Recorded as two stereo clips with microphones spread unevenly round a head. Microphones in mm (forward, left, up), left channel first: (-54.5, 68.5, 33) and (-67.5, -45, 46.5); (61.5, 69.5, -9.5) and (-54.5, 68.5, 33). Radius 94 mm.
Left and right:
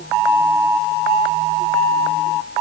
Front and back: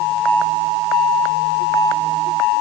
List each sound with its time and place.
Only background noise.